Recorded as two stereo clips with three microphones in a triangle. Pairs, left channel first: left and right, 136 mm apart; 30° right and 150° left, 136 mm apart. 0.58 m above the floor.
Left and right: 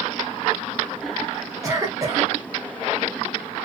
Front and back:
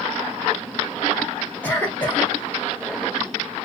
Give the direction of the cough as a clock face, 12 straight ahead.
3 o'clock.